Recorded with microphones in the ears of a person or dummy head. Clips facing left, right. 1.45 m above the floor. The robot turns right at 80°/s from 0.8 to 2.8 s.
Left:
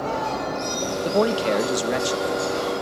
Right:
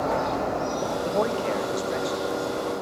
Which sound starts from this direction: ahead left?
A man speaking, at 1.0 s.